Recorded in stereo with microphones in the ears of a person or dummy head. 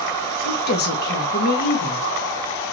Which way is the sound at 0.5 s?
55° left (ahead or behind).